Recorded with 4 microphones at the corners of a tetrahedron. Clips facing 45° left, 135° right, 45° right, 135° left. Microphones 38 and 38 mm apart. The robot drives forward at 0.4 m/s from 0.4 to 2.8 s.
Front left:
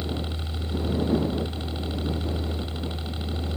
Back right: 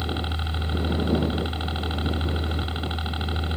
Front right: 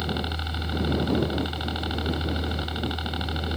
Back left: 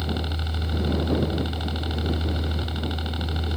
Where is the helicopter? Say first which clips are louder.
Back right 2 dB, even; 110° right; by 3.6 s 115° right.